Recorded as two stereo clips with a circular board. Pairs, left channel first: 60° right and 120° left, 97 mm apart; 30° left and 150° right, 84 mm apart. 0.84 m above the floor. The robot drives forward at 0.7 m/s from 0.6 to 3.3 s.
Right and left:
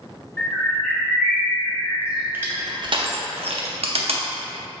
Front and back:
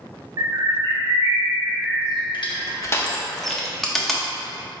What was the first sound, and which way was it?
A bird, 130° right.